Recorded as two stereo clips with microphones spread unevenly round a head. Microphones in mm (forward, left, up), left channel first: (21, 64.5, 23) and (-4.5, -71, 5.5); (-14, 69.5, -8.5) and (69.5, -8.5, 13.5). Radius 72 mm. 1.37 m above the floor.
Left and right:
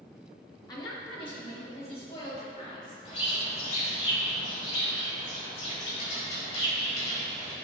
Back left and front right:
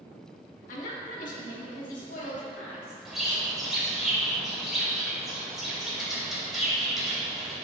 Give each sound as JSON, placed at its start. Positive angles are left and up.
{"t": 0.7, "sound": "a woman speaking", "azimuth_deg": 145, "distance_m": 1.4}
{"t": 3.0, "sound": "a bird", "azimuth_deg": 40, "distance_m": 2.5}